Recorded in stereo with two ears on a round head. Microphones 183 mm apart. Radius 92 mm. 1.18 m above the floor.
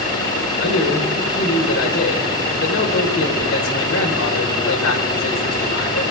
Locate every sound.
0.6 s a man speaking: 70° left (ahead or behind), 4.5 m